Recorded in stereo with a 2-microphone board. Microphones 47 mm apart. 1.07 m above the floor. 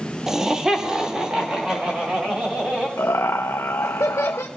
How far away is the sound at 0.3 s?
About 1.2 m.